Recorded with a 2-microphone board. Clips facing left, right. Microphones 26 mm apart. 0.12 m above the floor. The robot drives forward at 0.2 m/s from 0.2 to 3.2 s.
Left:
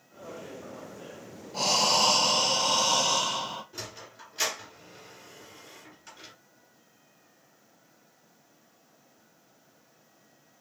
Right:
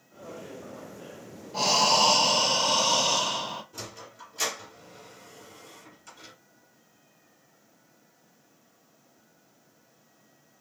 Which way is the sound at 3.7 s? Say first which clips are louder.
Even; 30° left (ahead or behind).